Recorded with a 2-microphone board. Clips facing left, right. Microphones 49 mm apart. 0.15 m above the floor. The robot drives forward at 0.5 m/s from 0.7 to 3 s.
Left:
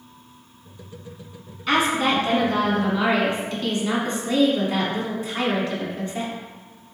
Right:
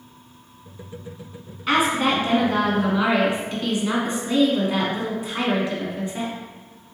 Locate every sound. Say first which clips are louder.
1.7 s a woman speaking: even; 15° right (ahead or behind), 1.1 m